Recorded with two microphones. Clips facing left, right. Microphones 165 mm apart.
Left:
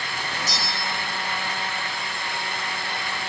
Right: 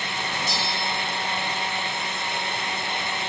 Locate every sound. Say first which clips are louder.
0.5 s a bell: right 2 dB; 40° left (ahead or behind), 1.4 m